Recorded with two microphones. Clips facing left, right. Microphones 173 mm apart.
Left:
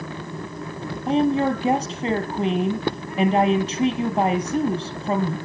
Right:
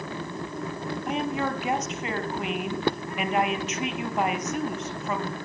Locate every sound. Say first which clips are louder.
1.1 s a woman speaking: left 10 dB; 35° left (ahead or behind), 3 m